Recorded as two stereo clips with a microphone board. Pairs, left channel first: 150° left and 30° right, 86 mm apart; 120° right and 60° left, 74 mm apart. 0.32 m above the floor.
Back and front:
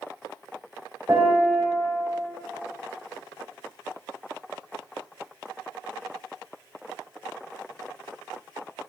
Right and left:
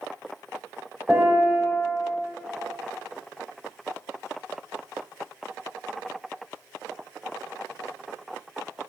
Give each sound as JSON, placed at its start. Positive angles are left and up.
{"t": 1.1, "sound": "a piano", "azimuth_deg": -20, "distance_m": 1.1}